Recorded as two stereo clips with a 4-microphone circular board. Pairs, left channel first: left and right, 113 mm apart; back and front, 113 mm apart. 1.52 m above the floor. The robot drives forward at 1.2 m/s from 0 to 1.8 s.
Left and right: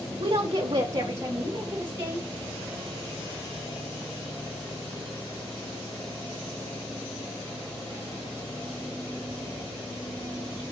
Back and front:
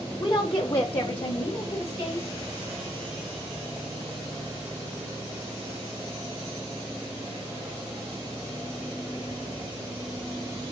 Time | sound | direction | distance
0.2 | a woman speaking | 120° right | 1.0 m